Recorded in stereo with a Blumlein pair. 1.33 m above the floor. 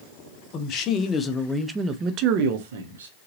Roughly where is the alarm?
I don't hear an alarm.